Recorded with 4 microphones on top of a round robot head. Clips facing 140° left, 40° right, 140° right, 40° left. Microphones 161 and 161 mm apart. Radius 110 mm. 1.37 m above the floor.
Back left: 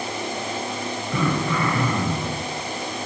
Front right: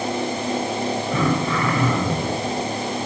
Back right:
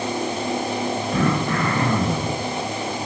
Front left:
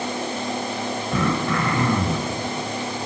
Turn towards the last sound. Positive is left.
turn(degrees=40)